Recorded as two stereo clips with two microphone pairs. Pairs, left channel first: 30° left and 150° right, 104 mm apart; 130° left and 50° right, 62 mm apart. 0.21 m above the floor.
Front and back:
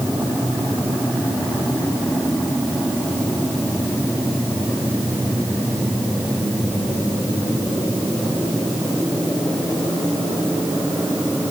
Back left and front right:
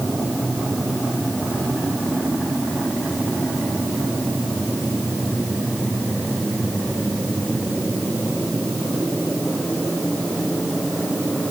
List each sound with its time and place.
Only background noise.